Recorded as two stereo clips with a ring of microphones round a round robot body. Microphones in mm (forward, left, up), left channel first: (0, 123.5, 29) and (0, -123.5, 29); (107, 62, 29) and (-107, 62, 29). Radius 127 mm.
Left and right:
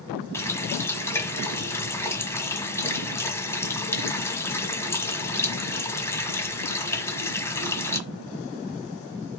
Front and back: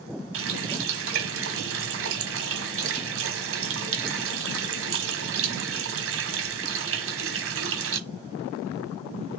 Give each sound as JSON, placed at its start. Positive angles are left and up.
{"t": 0.3, "sound": "a running tap", "azimuth_deg": 170, "distance_m": 1.4}